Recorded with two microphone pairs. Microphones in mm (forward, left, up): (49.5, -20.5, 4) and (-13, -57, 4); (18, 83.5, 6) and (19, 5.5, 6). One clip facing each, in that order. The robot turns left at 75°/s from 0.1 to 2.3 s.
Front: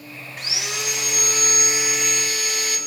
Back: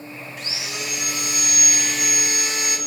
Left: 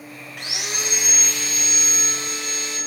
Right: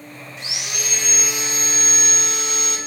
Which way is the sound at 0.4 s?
65° left.